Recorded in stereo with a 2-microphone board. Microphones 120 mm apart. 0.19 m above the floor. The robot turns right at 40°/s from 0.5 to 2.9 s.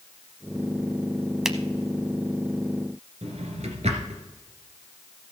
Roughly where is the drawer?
Right.